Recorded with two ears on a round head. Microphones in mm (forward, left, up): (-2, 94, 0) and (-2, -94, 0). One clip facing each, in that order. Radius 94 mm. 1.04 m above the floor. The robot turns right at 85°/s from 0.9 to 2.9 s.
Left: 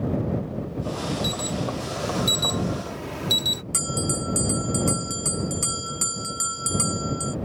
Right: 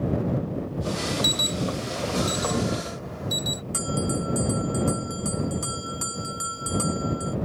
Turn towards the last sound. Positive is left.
turn(degrees=35)  # may be behind; listen again after turning